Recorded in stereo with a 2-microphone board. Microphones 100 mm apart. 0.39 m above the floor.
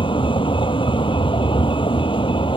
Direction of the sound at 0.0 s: 55° left (ahead or behind).